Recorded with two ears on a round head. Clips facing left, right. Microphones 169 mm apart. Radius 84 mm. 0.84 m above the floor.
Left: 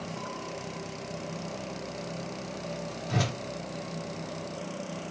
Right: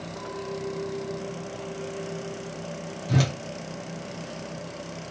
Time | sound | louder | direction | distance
0.2 | a clink | right 5 dB | 55° right (ahead or behind) | 2 m
3.1 | a whoosh | right 5 dB | 40° right (ahead or behind) | 1.9 m